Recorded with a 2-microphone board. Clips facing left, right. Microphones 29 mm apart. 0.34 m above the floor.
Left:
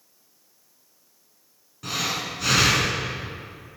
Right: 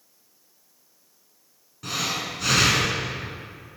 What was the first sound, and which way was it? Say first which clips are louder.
Breathing: even; 5° left (ahead or behind).